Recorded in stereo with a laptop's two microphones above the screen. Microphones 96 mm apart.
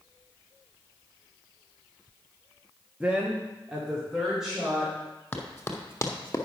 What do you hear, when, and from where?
3.0 s a woman speaking: 15° right (ahead or behind), 0.9 m; by 4.9 s 5° right (ahead or behind), 3.5 m
5.3 s running footsteps: 20° left (ahead or behind), 1.5 m; by 6.5 s 35° left (ahead or behind), 1.1 m